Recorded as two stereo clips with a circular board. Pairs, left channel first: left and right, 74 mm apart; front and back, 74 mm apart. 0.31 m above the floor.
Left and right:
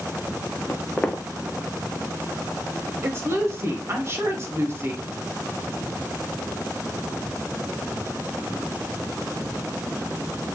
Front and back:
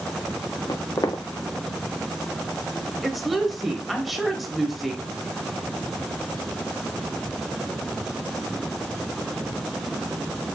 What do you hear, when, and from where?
0.7 s footsteps: 15° left, 1.3 m
3.0 s a woman speaking: 90° right, 1.1 m